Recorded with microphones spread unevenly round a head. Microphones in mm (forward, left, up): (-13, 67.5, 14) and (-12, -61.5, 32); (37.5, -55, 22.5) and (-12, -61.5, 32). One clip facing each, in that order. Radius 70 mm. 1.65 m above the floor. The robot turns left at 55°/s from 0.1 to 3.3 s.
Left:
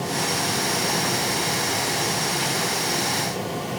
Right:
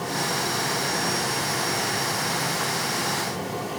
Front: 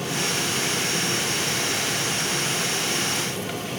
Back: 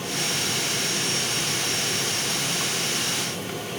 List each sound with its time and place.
Only background noise.